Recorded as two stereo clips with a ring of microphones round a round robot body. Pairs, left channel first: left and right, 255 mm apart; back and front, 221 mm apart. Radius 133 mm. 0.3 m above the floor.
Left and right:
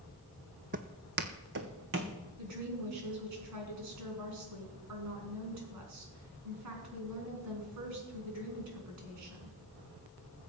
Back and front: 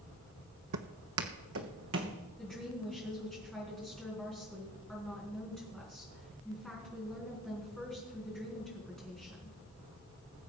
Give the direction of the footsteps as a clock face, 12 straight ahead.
1 o'clock.